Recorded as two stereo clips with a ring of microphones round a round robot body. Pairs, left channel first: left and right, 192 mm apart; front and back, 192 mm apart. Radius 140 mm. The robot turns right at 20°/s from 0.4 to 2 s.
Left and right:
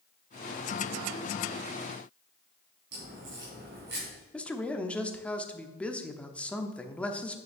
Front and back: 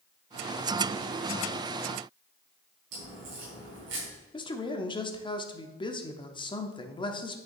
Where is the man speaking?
15° left, 1.0 m.